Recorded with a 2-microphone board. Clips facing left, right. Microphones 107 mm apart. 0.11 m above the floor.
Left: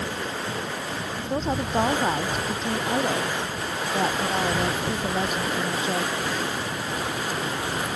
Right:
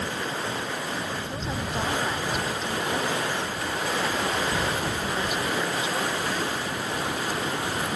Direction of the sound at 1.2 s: 40° left (ahead or behind).